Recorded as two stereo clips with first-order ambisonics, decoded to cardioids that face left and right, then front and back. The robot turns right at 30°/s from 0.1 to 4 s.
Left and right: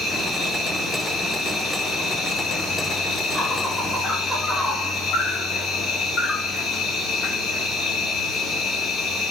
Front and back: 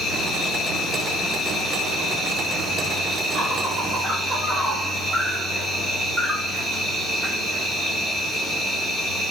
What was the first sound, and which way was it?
An insect, 10° right.